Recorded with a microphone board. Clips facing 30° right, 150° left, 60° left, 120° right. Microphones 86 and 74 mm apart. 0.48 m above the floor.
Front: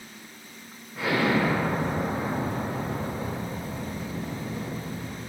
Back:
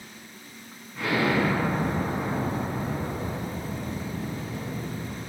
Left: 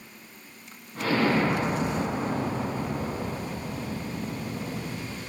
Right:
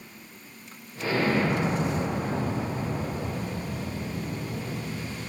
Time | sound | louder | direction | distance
0.9 | an explosion | even, left 1 dB | 55° left | 1.2 m